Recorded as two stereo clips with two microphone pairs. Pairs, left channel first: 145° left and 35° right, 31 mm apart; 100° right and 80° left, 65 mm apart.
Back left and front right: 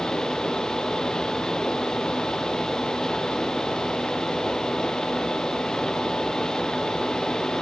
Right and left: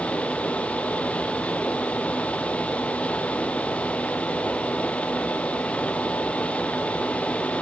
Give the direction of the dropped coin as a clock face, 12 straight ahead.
No dropped coin in this recording.